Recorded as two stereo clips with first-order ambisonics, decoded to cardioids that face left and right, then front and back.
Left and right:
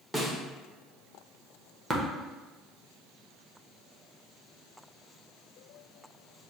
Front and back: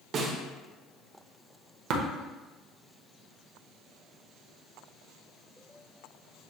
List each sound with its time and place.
0.1 s a snare drum: 170° right, 0.7 m
1.9 s tapping: 170° right, 0.8 m